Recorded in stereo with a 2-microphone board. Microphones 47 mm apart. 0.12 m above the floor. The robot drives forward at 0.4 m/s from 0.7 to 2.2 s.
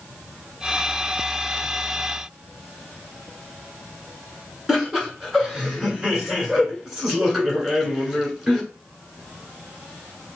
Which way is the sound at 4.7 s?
10° right (ahead or behind).